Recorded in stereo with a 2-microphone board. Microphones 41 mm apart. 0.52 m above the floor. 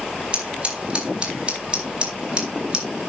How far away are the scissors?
About 3.5 m.